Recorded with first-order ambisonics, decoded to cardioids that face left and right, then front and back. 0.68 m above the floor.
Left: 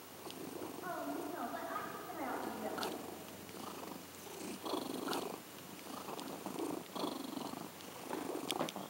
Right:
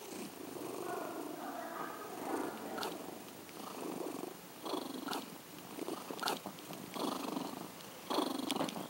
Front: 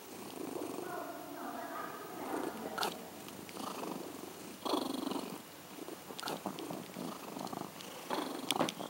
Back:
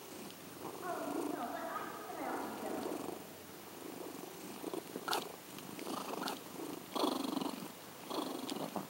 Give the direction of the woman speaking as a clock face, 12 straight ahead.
7 o'clock.